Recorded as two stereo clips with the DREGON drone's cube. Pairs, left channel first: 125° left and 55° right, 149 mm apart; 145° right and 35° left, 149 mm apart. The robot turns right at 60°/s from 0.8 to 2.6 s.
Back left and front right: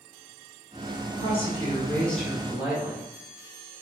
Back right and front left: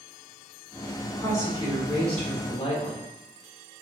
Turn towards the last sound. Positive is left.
turn(degrees=-130)